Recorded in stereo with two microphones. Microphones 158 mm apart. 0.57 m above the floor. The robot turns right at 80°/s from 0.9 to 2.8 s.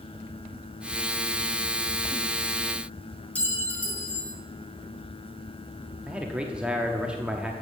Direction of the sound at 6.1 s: 5° right (ahead or behind).